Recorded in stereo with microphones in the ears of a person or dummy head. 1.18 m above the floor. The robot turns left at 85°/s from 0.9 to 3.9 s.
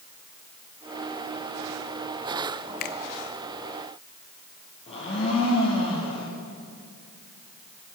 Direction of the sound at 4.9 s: 35° left (ahead or behind).